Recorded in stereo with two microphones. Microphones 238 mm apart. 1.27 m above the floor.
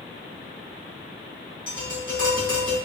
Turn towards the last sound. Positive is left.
turn(degrees=-55)  # may be behind; listen again after turning